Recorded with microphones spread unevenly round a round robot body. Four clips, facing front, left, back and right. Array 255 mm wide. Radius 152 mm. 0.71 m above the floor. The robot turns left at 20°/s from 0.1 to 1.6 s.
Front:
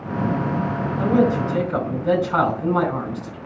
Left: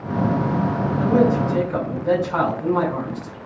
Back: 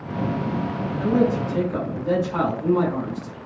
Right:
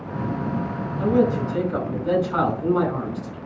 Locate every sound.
1.0 s a man speaking: 25° left, 5 m; by 3.4 s 10° left, 5 m